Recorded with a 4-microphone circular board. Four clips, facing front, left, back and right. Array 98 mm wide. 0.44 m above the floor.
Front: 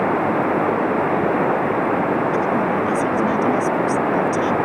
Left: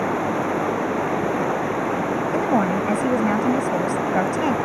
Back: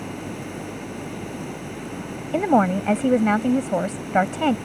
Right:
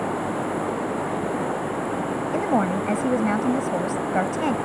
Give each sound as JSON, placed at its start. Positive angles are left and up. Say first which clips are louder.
{"t": 0.0, "sound": "running water", "louder": "left 4 dB, front 14 dB", "azimuth_deg": 10}
{"t": 2.3, "sound": "a woman speaking", "louder": "left 1 dB, even", "azimuth_deg": 180}